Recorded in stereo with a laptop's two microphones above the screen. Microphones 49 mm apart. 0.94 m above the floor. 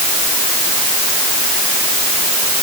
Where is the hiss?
No hiss in this recording.